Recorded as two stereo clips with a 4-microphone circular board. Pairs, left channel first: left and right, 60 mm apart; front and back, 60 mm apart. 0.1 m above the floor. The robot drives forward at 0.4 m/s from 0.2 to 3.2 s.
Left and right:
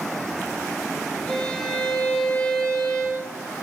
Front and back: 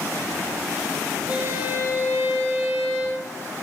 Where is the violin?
155° left, 1.5 m; by 3.3 s 165° left, 2 m.